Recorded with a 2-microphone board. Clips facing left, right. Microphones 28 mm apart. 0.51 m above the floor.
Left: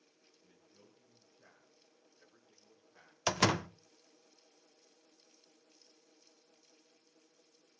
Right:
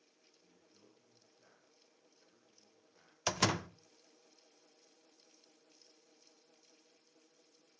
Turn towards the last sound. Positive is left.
turn(degrees=15)  # may be behind; listen again after turning